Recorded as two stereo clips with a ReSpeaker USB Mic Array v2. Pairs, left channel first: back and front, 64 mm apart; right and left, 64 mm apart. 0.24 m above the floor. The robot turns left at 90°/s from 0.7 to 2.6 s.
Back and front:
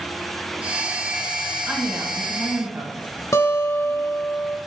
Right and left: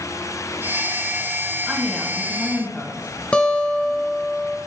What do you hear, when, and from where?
1.7 s a woman speaking: 25° left, 1.7 m; by 3.1 s 55° right, 1.7 m
3.3 s a guitar: 160° right, 0.6 m